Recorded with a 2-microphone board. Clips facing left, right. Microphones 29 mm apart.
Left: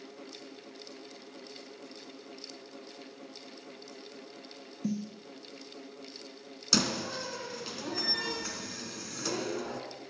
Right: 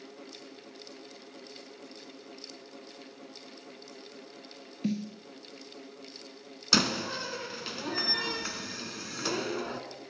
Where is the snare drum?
60° right (ahead or behind), 0.9 m.